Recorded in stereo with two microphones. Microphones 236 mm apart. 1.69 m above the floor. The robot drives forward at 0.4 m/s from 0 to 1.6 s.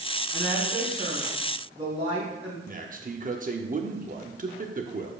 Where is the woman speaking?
30° right (ahead or behind), 4 m; by 2.6 s 25° right (ahead or behind), 4.5 m.